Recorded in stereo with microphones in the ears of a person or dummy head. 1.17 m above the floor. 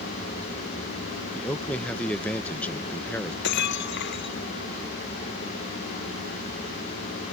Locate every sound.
1.4 s a man speaking: 10° left (ahead or behind)
3.4 s breaking glass: 65° left (ahead or behind)